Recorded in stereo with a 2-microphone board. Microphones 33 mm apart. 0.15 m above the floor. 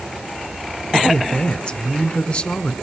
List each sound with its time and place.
0.9 s a man speaking: 35° left (ahead or behind), 1.2 m